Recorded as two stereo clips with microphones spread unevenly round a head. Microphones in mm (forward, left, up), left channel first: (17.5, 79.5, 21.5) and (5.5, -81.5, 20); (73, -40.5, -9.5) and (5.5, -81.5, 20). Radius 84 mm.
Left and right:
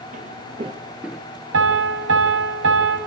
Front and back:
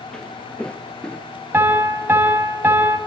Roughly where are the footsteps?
Ahead right.